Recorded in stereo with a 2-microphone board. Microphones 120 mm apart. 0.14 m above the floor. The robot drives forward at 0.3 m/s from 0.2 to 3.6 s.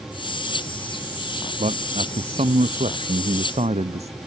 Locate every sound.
1.6 s a man speaking: 65° right (ahead or behind)